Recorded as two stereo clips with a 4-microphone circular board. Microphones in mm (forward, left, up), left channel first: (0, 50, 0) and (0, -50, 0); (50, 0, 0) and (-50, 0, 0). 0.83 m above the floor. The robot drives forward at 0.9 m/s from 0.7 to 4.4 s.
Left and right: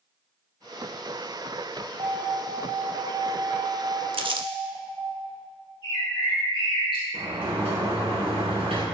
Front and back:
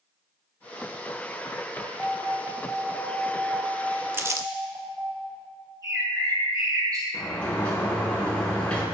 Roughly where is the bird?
Behind left.